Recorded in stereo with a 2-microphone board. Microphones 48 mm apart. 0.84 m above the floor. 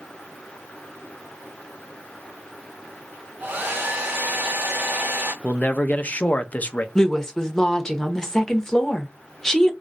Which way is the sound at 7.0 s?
15° left (ahead or behind).